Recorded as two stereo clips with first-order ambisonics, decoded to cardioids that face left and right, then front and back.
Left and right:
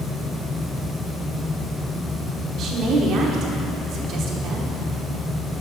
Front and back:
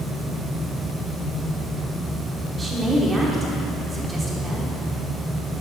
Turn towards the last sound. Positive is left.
turn(degrees=-110)